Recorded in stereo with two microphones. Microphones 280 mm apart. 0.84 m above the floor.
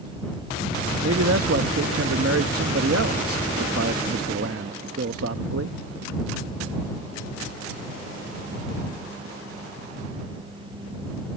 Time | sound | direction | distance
1.0 | a man speaking | 55° right (ahead or behind) | ?